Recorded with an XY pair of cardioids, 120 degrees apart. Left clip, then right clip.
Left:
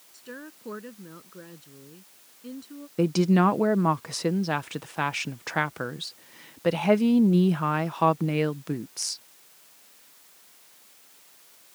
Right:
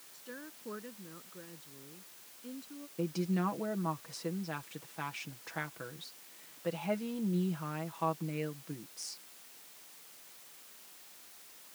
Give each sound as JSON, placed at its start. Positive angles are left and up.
{"t": 0.1, "sound": "a woman speaking", "azimuth_deg": 30}
{"t": 3.0, "sound": "a woman speaking", "azimuth_deg": 70}